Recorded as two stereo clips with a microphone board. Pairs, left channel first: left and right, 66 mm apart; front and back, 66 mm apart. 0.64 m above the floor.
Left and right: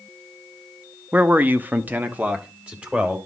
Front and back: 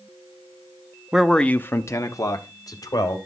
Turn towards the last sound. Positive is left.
turn(degrees=-20)